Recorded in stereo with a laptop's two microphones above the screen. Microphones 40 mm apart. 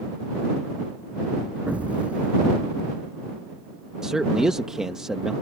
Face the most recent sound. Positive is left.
turn(degrees=-15)  # may be behind; listen again after turning